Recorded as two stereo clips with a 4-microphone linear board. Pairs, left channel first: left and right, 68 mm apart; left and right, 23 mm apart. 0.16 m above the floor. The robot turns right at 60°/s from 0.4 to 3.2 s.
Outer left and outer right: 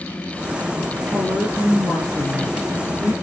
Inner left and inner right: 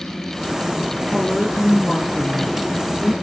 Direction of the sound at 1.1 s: 65° right.